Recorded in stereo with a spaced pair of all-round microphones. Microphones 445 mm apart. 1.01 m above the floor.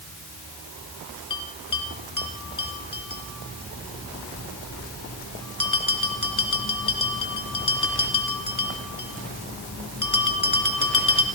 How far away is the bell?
About 2.5 m.